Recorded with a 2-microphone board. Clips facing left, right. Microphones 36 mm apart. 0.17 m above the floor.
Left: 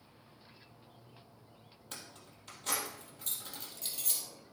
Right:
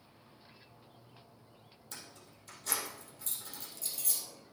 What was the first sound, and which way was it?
Keys jangling, 40° left (ahead or behind).